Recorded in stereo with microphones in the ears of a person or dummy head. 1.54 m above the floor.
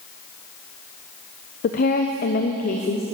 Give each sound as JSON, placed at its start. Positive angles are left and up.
{"t": 1.6, "sound": "a woman speaking", "side_deg": 45, "distance_m": 1.0}